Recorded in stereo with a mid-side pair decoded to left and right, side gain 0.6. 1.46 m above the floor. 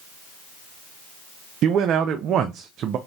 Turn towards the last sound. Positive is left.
turn(degrees=-55)